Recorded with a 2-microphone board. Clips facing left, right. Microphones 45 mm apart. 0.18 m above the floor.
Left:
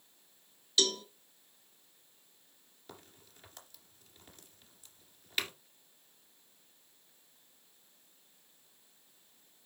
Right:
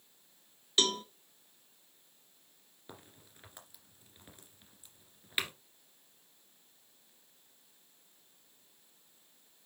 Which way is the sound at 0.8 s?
35° right (ahead or behind).